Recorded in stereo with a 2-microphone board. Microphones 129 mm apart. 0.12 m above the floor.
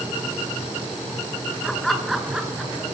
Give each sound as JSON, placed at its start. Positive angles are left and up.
{"t": 1.6, "sound": "laughter", "side_deg": 5, "distance_m": 1.1}